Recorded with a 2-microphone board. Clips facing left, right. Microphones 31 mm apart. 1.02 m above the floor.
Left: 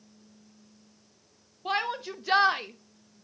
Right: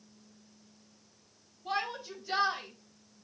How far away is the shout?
About 1.2 m.